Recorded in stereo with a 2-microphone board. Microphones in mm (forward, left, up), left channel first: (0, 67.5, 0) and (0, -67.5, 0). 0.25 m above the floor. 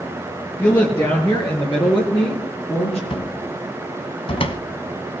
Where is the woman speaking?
30° left (ahead or behind), 4 m; by 3.0 s 50° left (ahead or behind), 4.5 m.